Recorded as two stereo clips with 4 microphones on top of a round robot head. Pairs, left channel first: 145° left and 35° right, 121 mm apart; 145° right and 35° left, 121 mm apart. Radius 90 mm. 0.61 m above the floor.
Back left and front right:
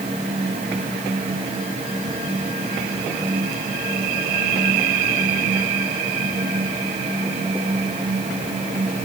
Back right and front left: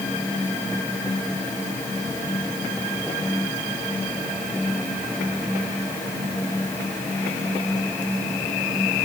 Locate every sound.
Only background noise.